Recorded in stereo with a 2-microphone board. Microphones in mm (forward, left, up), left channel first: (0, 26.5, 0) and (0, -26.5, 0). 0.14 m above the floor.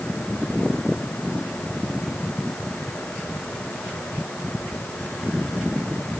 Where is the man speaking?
I don't hear a man speaking.